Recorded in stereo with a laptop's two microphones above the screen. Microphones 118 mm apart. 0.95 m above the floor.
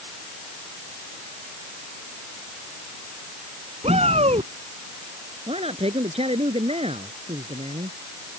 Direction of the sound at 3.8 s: 60° right (ahead or behind).